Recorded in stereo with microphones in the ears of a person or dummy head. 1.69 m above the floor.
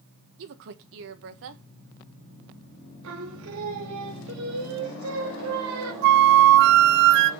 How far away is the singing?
About 2.5 m.